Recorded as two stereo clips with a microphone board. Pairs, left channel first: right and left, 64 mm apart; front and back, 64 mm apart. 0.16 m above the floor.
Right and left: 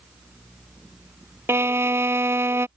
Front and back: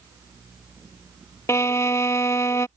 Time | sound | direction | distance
1.5 | a violin | 40° left | ?